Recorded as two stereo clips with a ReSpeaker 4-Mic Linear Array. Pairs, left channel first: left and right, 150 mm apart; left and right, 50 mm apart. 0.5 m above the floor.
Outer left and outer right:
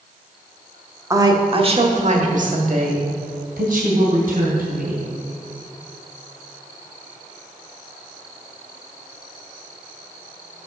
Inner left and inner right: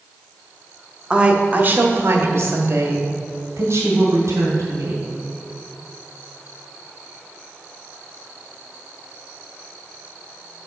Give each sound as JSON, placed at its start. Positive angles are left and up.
{"t": 1.1, "sound": "a woman speaking", "side_deg": -20, "distance_m": 0.8}